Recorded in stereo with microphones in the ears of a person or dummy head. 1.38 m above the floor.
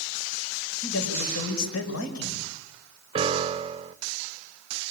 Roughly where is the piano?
Right.